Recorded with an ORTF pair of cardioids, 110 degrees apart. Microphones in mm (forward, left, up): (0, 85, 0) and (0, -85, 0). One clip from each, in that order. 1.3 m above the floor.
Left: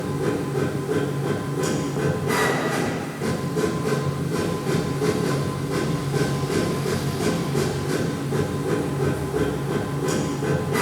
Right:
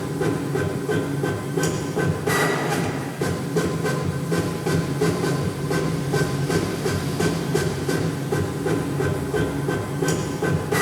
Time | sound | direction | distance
0.0 | a machine running | 40° right | 3 m